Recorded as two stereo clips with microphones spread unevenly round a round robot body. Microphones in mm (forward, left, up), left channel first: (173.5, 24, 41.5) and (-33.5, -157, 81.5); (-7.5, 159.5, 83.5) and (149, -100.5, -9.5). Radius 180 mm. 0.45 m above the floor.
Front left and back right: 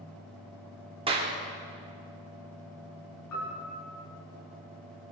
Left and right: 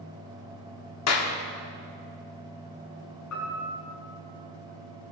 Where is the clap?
150° left, 1.2 m.